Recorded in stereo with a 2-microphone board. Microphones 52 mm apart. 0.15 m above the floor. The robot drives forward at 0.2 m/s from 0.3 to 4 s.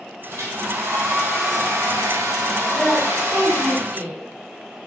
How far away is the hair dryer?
About 2 m.